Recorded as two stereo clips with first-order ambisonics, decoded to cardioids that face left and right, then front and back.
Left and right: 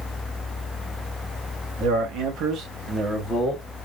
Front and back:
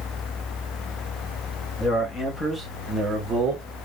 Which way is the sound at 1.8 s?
60° right.